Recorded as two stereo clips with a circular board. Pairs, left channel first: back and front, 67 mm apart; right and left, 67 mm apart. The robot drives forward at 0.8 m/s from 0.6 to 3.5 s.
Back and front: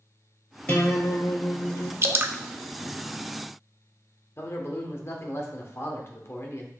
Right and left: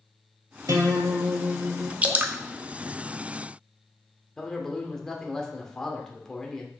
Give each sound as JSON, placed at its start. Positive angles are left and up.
{"t": 0.7, "sound": "a guitar", "azimuth_deg": 110, "distance_m": 1.8}
{"t": 2.0, "sound": "dripping", "azimuth_deg": 30, "distance_m": 0.6}
{"t": 4.4, "sound": "a man speaking", "azimuth_deg": -165, "distance_m": 1.3}